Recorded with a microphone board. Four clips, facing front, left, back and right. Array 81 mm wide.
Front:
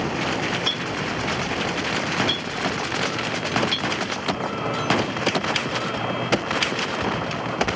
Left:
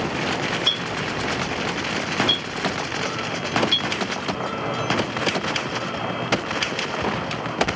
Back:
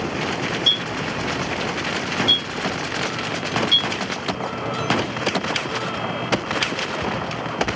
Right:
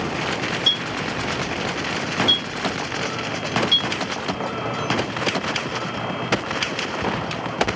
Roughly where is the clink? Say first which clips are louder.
Even, even; ahead left.